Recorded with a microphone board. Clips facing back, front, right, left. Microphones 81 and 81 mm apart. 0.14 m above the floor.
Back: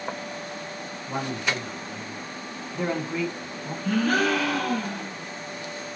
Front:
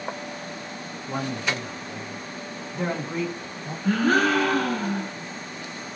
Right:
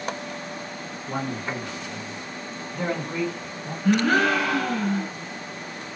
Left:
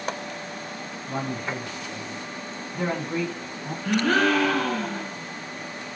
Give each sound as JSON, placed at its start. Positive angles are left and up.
{"t": 1.1, "sound": "a man speaking", "azimuth_deg": -105, "distance_m": 1.4}
{"t": 3.8, "sound": "a gasp", "azimuth_deg": -15, "distance_m": 2.0}